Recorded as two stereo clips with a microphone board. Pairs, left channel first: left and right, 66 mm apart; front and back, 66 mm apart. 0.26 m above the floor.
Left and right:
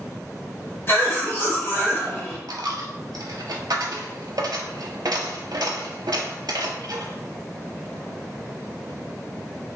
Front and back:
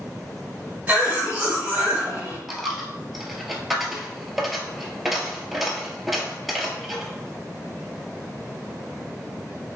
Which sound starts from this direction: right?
A dropped coin, at 2.5 s.